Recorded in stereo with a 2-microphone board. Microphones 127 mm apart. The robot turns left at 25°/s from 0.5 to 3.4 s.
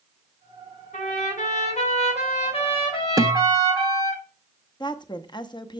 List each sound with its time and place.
0.9 s a trumpet: 95° left, 3.5 m; by 4.2 s 35° left, 3.5 m
3.2 s a guitar: 30° right (ahead or behind), 0.6 m
4.8 s a woman speaking: 35° left (ahead or behind), 0.7 m